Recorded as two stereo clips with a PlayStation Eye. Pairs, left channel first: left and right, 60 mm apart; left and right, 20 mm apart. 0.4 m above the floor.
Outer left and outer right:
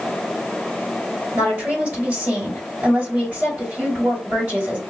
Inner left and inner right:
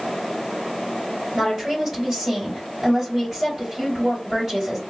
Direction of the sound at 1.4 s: 30° right (ahead or behind).